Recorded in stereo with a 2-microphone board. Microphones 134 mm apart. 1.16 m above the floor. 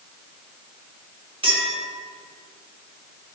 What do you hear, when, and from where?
1.4 s a clink: 45° right (ahead or behind), 2.5 m